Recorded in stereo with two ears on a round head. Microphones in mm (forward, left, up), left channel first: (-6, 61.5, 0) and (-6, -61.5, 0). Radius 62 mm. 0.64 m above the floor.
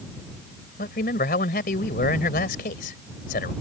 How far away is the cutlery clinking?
No cutlery clinking in this recording.